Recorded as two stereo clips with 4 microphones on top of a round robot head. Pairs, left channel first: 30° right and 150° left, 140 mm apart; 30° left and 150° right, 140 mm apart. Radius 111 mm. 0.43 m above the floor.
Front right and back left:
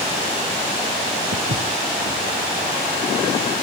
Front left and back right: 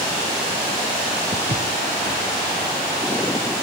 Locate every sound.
1.3 s footsteps: 160° left, 1.8 m; by 3.6 s 170° left, 4.5 m